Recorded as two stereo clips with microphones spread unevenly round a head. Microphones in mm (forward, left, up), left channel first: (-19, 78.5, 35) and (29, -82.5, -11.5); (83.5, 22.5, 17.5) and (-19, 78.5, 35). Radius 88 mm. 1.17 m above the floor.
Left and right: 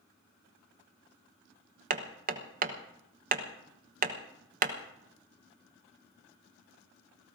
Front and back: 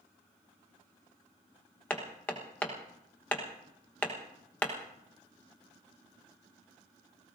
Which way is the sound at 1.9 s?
110° right.